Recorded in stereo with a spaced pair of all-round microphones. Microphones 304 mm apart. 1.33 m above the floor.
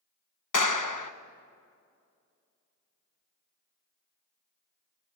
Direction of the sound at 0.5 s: 85° left.